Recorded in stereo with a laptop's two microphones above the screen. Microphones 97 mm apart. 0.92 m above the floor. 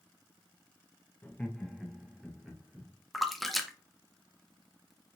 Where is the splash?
Centre (ahead or behind), 0.5 m.